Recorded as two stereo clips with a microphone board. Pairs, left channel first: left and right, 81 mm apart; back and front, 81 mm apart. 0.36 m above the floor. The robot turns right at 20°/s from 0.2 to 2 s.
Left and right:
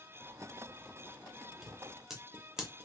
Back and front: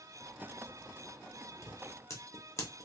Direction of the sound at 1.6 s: 175° right.